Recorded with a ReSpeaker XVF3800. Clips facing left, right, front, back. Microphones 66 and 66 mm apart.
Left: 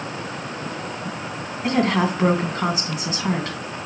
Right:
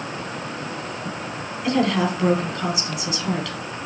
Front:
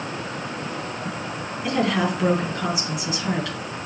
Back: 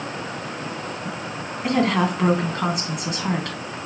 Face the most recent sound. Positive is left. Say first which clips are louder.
# left 1 dB, back 2 dB
turn(degrees=140)